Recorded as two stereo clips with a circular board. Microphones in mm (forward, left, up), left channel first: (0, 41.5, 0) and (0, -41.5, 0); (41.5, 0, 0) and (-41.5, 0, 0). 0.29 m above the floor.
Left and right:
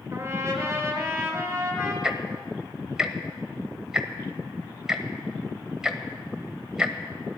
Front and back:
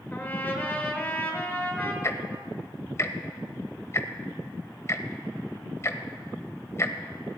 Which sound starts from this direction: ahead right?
A trumpet, at 0.1 s.